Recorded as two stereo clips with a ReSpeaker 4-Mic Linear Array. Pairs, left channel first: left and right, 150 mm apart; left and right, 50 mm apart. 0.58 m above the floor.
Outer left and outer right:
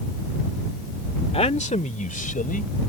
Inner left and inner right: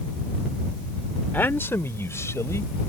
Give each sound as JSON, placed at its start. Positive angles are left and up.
{"t": 1.3, "sound": "a man speaking", "side_deg": 40}